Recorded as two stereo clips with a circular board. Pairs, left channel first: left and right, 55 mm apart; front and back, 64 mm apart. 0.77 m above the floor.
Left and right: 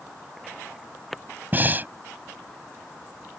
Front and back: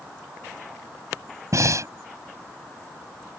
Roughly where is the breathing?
Behind right.